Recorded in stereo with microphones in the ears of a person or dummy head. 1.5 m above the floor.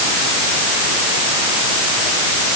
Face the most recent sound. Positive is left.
No sound to turn to.